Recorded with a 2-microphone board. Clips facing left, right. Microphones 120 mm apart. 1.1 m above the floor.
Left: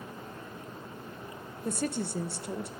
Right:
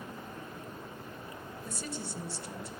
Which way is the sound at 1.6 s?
55° left (ahead or behind).